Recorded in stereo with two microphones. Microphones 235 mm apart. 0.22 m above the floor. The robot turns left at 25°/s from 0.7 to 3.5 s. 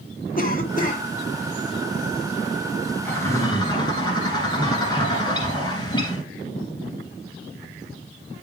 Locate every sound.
0.4 s a cough: 35° left (ahead or behind), 2 m; by 1.0 s 30° left (ahead or behind), 2 m
3.0 s a bird: 5° left (ahead or behind), 3 m; by 6.2 s 15° left (ahead or behind), 3 m